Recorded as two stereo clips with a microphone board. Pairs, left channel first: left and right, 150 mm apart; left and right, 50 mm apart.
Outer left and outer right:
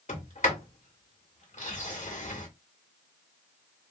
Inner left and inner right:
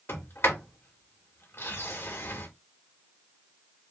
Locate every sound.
0.1 s a sliding door: 55° left (ahead or behind), 1.8 m